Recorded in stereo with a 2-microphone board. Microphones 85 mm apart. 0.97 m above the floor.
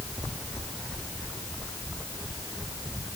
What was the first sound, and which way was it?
Only background noise.